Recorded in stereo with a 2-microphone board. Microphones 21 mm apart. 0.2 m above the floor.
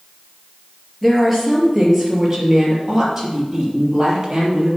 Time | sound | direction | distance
1.0 | a woman speaking | centre (ahead or behind) | 4.5 m